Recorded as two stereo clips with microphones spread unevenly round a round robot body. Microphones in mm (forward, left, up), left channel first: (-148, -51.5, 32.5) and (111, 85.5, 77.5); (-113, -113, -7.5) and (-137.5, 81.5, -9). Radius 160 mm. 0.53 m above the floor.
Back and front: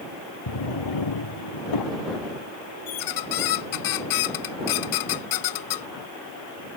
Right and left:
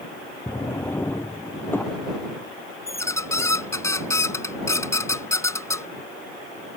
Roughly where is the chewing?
I don't hear chewing.